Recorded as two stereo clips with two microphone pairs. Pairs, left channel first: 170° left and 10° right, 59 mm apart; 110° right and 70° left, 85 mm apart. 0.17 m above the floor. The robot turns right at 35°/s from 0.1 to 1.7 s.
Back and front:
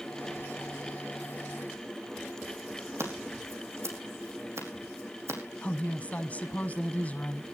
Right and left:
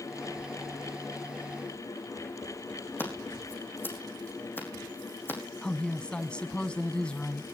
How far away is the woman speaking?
About 1.1 m.